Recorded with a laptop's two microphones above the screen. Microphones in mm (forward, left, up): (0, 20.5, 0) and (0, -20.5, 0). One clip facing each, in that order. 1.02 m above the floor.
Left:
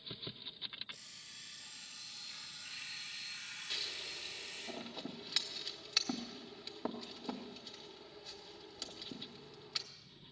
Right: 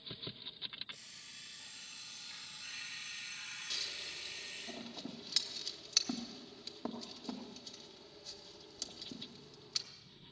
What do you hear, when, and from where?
0.9 s an alarm clock: 35° right (ahead or behind), 7.5 m
3.7 s scissors: 15° left (ahead or behind), 1.2 m